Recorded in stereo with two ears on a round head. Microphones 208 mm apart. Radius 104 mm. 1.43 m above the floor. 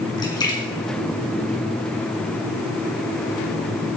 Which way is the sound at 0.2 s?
15° left (ahead or behind).